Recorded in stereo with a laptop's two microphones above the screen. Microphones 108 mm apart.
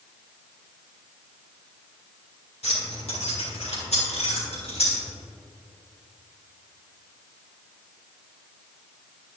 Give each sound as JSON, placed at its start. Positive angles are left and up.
{"t": 2.6, "sound": "keys jangling", "side_deg": 85, "distance_m": 2.0}